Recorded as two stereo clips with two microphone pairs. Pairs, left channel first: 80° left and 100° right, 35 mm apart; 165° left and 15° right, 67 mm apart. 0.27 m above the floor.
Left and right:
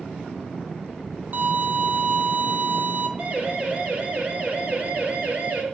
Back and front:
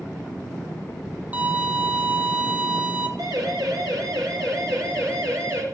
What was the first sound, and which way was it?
A violin, 80° right.